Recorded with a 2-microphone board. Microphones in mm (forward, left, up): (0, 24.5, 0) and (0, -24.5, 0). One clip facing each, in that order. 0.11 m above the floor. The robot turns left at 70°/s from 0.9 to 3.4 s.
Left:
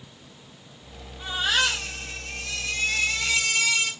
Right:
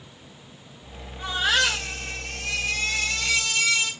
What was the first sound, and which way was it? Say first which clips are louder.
A baby crying: right 2 dB; 45° right.